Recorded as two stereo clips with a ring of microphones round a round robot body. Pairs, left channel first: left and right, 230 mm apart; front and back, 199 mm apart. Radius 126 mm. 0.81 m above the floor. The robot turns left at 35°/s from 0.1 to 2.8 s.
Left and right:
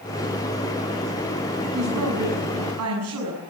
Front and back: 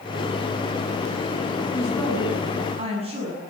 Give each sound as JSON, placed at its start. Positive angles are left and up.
{"t": 1.7, "sound": "a woman speaking", "azimuth_deg": -75, "distance_m": 7.0}